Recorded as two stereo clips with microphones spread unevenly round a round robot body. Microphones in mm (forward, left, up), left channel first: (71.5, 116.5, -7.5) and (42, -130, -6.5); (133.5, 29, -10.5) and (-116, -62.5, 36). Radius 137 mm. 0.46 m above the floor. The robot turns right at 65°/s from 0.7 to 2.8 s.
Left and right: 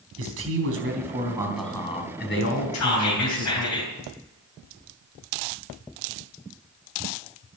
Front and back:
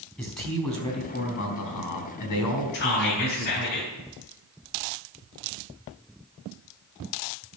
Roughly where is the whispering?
Left.